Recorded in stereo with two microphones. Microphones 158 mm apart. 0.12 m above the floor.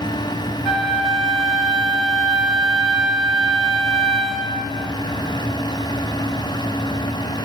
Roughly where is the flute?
Centre.